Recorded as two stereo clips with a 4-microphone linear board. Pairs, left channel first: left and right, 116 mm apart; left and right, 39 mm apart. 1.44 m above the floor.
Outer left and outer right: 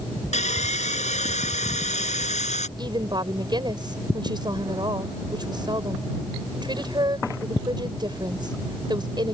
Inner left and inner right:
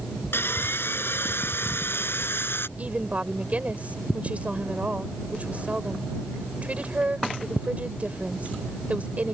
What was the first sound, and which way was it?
Sawing, 85° left.